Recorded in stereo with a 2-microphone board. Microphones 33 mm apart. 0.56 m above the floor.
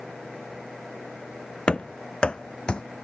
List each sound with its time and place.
1.7 s running footsteps: 35° left (ahead or behind); by 2.8 s 30° left (ahead or behind)